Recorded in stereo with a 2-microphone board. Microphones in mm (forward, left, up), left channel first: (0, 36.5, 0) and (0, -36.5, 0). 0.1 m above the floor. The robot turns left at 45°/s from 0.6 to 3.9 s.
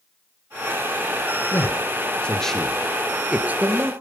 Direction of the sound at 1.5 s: 35° left (ahead or behind).